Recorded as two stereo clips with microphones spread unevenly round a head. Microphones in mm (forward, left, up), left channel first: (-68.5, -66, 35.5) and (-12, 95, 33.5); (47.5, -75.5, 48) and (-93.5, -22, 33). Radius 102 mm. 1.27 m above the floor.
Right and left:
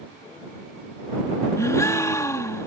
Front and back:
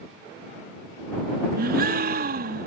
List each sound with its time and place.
1.6 s a gasp: straight behind